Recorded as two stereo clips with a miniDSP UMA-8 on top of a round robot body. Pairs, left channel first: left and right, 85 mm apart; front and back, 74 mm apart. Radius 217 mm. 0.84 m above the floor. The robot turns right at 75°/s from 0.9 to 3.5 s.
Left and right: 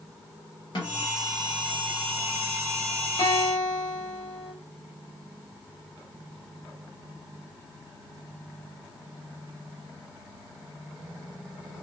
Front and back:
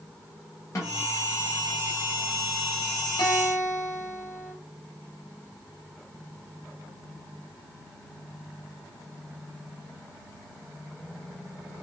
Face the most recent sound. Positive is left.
turn(degrees=55)